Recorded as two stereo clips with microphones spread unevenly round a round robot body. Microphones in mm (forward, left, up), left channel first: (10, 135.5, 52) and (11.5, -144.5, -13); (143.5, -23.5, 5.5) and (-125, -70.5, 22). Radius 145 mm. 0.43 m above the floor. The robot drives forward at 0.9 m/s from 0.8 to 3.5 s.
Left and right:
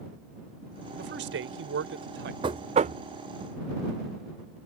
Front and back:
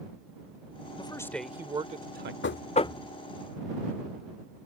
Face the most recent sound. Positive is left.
turn(degrees=-135)